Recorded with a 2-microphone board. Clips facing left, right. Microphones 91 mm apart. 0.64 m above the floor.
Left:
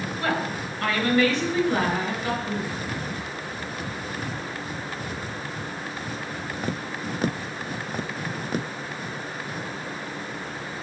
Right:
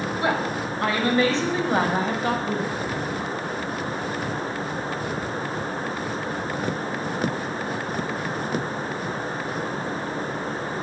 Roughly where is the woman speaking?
Centre.